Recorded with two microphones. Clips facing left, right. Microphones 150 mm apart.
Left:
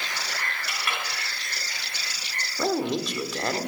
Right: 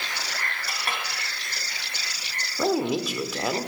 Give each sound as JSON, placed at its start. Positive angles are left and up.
{"t": 0.7, "sound": "a clink", "side_deg": -40, "distance_m": 2.5}
{"t": 2.6, "sound": "a man speaking", "side_deg": -5, "distance_m": 1.0}